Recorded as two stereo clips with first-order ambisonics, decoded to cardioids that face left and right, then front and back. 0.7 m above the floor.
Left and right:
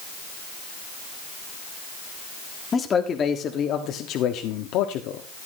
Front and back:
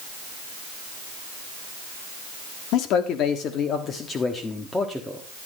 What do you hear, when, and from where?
2.7 s a man speaking: 20° left, 1.4 m; by 5.2 s 85° left, 1.5 m